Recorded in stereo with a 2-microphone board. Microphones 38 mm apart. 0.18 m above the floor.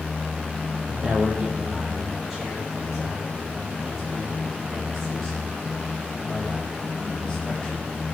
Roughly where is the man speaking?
Centre.